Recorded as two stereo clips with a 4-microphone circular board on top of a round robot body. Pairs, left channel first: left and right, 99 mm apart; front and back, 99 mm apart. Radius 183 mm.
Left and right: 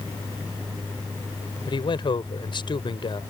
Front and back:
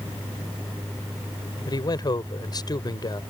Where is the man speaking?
50° left.